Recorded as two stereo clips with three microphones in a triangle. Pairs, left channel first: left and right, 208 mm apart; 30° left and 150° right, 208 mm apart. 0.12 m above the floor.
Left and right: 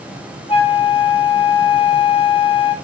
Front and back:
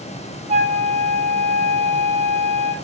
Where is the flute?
155° left, 1.0 m.